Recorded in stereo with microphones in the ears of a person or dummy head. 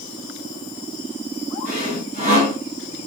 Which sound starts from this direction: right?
Sawing, at 1.6 s.